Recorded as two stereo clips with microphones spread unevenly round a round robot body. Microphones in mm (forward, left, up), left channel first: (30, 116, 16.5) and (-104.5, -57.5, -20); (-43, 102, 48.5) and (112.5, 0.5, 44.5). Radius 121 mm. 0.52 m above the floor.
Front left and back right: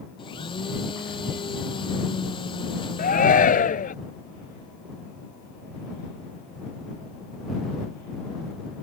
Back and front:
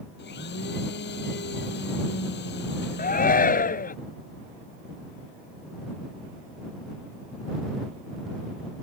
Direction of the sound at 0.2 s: 120° left.